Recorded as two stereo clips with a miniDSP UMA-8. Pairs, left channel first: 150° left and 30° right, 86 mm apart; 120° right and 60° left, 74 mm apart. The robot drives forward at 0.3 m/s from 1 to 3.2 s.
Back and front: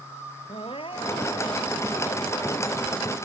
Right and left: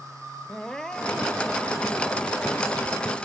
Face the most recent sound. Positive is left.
turn(degrees=160)